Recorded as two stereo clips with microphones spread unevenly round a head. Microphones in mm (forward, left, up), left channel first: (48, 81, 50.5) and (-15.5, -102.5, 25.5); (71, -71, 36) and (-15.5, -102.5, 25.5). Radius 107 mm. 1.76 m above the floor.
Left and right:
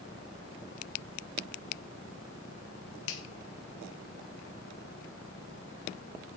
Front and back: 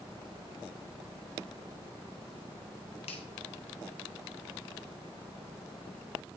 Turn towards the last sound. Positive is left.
turn(degrees=55)